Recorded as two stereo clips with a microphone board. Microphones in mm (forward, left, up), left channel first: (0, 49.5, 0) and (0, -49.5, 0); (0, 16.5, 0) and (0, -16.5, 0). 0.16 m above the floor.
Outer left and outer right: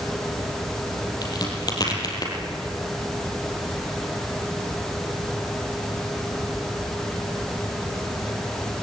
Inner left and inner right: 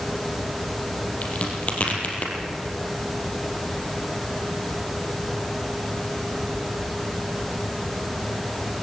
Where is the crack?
45° left (ahead or behind), 4.5 m.